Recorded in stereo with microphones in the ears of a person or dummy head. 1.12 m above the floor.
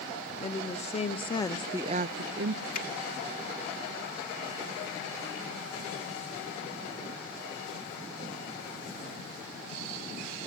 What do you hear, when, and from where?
0.4 s a woman speaking: 35° left (ahead or behind), 2 m; by 2.6 s 60° right (ahead or behind), 1.1 m
2.7 s a finger snap: 45° left (ahead or behind), 1.9 m